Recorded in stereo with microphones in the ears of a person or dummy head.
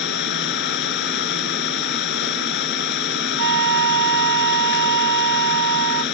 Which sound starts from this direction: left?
An engine running, at 0.0 s.